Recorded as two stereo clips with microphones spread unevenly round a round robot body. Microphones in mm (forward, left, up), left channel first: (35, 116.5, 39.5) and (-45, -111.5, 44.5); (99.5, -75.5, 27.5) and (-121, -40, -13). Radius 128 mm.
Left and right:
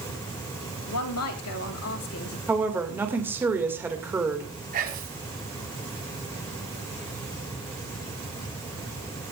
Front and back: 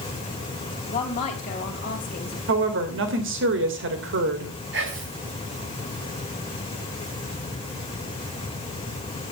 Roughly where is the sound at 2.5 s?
Behind.